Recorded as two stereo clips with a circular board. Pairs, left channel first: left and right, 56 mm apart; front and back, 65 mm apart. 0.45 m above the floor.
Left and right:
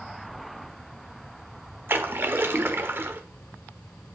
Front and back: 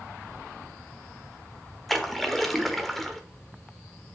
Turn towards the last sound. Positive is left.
turn(degrees=-85)